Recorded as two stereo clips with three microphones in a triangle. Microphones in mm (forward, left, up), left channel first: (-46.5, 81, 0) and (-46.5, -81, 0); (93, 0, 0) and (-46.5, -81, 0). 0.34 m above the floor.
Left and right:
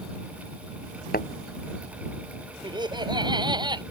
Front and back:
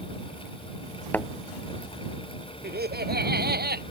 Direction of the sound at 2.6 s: 150° right.